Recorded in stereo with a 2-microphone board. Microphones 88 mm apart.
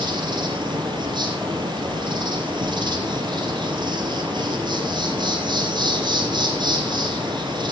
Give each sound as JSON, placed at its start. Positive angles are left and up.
{"t": 0.0, "sound": "an insect", "side_deg": -65, "distance_m": 4.0}